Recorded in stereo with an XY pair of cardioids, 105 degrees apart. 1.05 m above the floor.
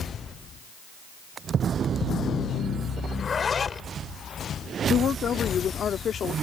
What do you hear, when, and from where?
3.1 s a zipper: 35° left
4.9 s a woman speaking: 50° left